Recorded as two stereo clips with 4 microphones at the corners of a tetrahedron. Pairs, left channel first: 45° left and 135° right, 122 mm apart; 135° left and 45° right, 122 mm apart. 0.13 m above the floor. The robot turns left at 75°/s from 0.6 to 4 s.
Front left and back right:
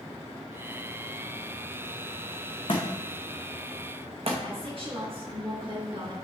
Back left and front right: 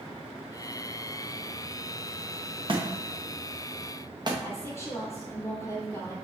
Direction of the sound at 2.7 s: Straight ahead.